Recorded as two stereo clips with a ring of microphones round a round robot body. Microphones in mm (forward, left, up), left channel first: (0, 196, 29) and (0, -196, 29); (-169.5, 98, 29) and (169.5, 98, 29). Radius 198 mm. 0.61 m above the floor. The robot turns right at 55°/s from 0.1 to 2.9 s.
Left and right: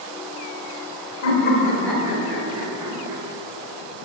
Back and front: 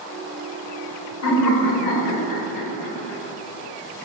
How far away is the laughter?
About 3 m.